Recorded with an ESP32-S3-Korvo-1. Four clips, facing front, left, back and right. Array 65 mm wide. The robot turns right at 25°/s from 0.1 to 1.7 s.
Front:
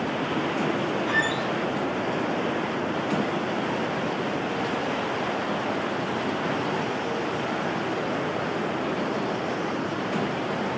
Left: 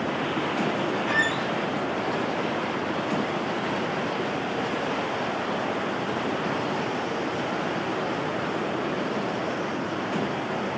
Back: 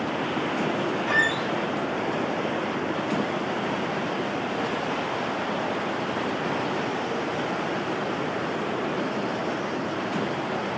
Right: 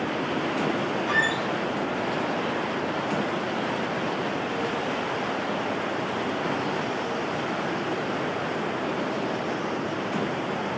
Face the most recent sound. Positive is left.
turn(degrees=160)